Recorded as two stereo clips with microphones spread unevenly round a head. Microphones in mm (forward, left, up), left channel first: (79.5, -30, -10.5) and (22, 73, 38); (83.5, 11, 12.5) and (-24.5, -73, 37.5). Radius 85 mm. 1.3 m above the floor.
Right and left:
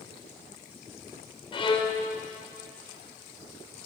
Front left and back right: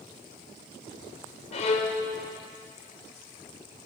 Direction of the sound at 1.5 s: 5° right.